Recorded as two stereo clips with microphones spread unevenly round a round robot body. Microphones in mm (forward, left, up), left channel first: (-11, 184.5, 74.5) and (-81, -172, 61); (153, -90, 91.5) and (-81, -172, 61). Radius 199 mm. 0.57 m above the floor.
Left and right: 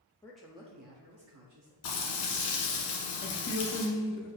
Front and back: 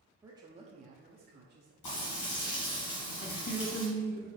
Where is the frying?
50° left, 1.3 m.